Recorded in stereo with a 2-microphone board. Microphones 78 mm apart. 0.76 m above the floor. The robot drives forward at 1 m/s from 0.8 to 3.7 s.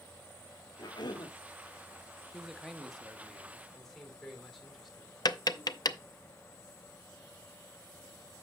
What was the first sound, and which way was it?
A cough, 60° left (ahead or behind).